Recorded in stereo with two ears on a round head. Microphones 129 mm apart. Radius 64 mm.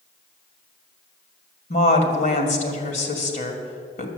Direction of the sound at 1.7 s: 55° left (ahead or behind).